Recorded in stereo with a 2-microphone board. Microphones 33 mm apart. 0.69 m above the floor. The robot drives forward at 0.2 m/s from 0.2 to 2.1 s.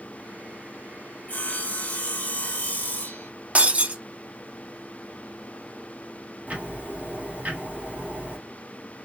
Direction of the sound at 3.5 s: 40° right (ahead or behind).